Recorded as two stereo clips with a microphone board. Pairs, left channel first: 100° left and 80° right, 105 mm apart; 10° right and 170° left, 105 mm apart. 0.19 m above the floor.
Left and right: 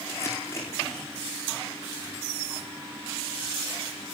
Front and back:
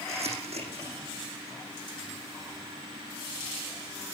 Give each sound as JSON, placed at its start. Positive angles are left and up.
{"t": 0.1, "sound": "crumpling", "azimuth_deg": 165, "distance_m": 9.0}